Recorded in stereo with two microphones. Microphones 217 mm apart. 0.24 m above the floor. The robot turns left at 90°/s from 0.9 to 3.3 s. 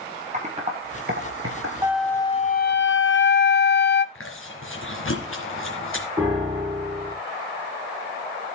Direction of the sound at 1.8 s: 165° right.